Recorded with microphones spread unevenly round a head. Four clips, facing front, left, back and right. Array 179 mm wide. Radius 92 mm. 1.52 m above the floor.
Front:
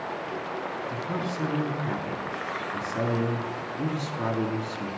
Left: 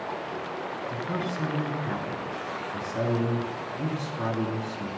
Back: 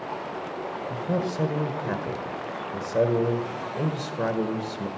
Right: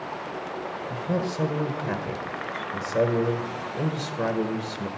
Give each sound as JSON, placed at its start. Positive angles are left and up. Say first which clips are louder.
{"t": 0.9, "sound": "a man speaking", "louder": "right 5 dB, back 7 dB", "azimuth_deg": -130, "distance_m": 1.4}